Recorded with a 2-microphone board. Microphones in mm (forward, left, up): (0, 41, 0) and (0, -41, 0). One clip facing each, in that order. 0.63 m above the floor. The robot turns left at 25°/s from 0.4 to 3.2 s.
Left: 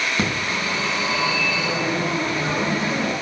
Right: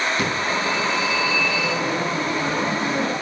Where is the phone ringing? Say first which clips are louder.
Right 2 dB; 40° left, 5 m; by 3.1 s 25° right, 5 m.